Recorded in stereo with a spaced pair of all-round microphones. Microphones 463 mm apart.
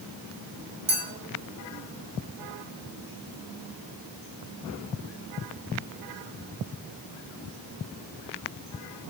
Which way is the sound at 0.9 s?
85° right.